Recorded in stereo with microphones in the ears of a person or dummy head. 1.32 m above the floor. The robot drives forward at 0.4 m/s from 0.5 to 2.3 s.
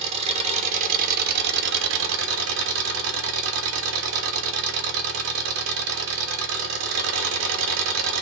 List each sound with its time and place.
0.0 s an engine running: 40° right (ahead or behind), 0.8 m; by 8.2 s 70° right (ahead or behind), 0.6 m